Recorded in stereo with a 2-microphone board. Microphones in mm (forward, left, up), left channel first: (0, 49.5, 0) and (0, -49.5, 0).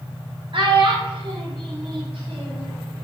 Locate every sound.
0.5 s a child speaking: 60° right (ahead or behind), 1.5 m; by 2.7 s 75° right (ahead or behind), 2.5 m